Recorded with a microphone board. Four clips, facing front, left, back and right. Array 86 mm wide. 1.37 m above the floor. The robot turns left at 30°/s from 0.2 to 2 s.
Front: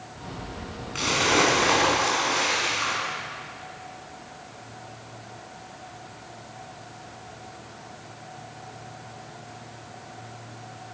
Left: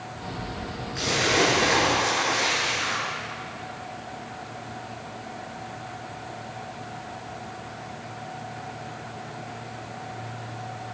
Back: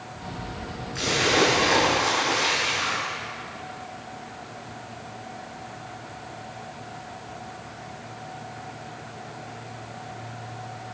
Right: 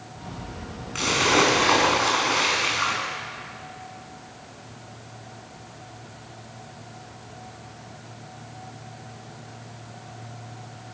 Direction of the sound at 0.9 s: 55° right.